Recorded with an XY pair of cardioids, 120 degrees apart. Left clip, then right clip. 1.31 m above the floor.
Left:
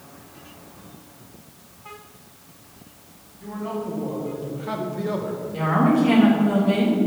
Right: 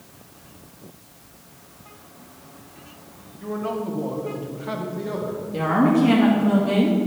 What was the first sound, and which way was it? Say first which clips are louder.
A man speaking: right 3 dB; 40° right.